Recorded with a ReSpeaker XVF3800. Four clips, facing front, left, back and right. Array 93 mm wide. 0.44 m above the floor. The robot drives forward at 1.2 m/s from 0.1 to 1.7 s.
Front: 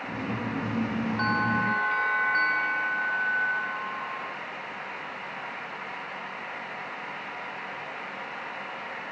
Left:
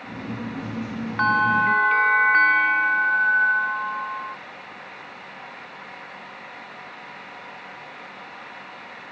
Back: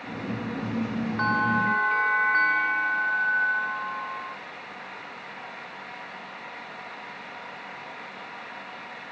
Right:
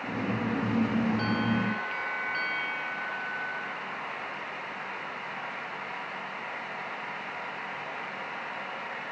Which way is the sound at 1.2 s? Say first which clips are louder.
Left 9 dB, back 3 dB; 100° left.